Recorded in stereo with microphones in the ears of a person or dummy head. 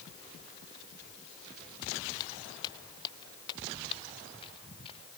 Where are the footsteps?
20° left (ahead or behind); by 5.2 s 30° left (ahead or behind).